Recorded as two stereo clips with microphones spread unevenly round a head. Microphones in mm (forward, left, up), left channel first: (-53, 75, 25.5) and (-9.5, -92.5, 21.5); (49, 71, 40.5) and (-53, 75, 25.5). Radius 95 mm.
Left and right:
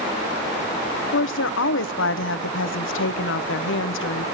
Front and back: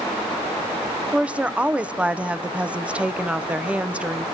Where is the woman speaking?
100° left, 0.7 m.